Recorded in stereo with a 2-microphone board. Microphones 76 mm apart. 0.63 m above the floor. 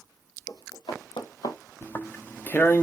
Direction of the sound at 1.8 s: 25° left (ahead or behind).